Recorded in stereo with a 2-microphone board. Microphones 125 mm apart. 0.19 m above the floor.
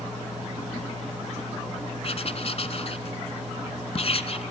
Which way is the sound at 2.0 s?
55° left (ahead or behind).